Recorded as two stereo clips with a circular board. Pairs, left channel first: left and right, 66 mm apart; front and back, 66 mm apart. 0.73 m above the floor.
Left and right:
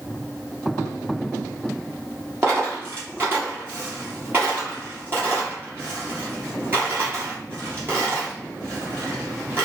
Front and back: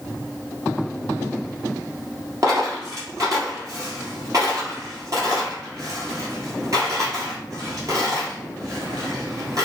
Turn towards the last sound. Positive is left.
turn(degrees=-140)